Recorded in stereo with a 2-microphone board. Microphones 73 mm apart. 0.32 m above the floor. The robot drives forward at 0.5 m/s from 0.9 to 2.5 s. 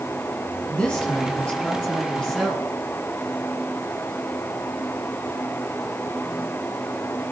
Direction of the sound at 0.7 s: 15° left (ahead or behind).